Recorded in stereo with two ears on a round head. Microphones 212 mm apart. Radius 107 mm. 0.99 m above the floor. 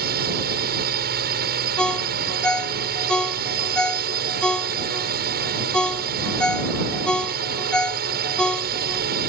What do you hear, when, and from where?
0.0 s a drone: 40° right (ahead or behind)
1.8 s a ringtone: 5° left (ahead or behind)